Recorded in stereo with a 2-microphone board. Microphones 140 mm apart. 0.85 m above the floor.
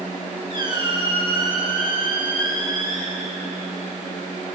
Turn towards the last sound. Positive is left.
turn(degrees=-35)  # may be behind; listen again after turning